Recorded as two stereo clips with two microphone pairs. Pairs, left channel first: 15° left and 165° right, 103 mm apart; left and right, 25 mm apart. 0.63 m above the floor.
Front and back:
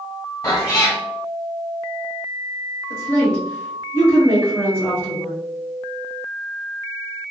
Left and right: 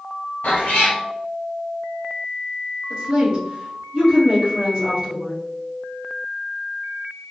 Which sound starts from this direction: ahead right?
A woman speaking, at 2.9 s.